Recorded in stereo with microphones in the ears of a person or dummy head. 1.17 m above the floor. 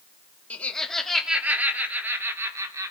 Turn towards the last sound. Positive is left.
turn(degrees=-10)  # may be behind; listen again after turning